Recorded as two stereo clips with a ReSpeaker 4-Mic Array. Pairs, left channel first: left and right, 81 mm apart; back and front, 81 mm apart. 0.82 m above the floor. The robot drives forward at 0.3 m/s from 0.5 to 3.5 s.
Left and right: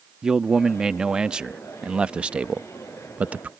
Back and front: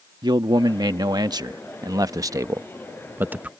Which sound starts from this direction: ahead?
A man speaking, at 0.2 s.